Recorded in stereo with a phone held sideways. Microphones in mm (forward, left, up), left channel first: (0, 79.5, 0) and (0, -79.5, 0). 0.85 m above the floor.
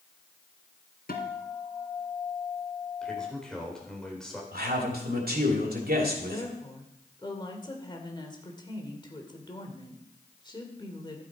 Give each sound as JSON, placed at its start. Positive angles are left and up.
{"t": 1.1, "sound": "a guitar", "side_deg": 70, "distance_m": 1.9}
{"t": 3.0, "sound": "a man speaking", "side_deg": 5, "distance_m": 3.5}
{"t": 4.5, "sound": "a man speaking", "side_deg": -70, "distance_m": 3.0}
{"t": 6.2, "sound": "a woman speaking", "side_deg": 30, "distance_m": 2.5}